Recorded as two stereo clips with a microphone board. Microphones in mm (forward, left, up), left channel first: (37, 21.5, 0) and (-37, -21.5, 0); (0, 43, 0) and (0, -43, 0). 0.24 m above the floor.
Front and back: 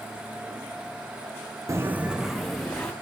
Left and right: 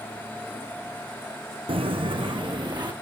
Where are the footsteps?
95° right, 0.8 m; by 2.9 s 50° right, 1.7 m.